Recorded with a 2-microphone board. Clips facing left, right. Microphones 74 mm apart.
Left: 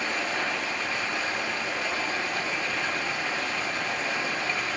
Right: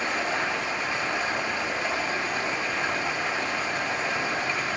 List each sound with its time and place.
0.0 s running water: 25° right (ahead or behind), 3 m